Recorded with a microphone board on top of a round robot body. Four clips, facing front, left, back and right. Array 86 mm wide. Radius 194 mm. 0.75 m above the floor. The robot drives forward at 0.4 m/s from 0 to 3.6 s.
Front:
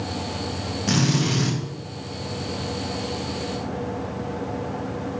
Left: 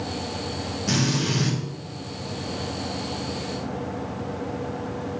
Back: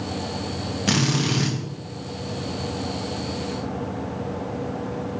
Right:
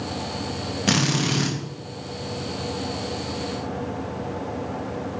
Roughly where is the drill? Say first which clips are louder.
Right 2 dB, front 1 dB; behind right.